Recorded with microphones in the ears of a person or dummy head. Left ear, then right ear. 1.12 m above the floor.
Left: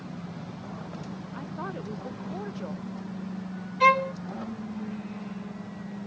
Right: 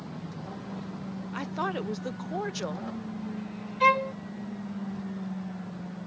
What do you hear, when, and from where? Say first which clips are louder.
1.3 s a woman speaking: right 6 dB; 70° right (ahead or behind)
3.8 s a violin: left 2 dB; 10° left (ahead or behind)